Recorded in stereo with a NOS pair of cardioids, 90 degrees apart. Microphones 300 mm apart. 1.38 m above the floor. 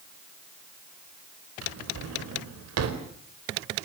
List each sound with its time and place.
1.6 s a drawer: 55° right, 4 m